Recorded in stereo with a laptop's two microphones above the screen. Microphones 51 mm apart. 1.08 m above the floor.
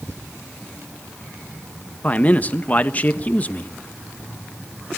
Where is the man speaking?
30° left (ahead or behind), 1.2 m.